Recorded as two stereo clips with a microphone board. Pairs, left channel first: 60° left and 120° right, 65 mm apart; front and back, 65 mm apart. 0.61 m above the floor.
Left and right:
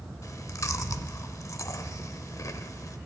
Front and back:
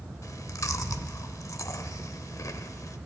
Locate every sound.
0.2 s chewing: 30° left, 0.9 m